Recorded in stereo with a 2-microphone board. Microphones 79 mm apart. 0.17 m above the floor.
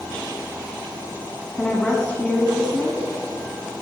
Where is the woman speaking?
10° left (ahead or behind), 1.1 m.